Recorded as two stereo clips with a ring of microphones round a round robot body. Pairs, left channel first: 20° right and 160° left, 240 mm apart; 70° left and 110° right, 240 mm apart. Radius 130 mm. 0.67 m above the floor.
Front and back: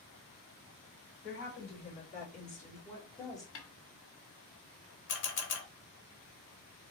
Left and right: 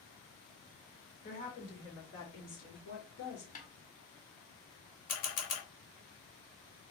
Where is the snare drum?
10° left, 1.1 m.